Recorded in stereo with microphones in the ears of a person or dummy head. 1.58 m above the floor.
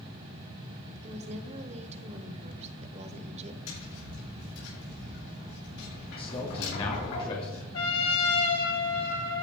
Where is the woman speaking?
40° right (ahead or behind), 1.3 m.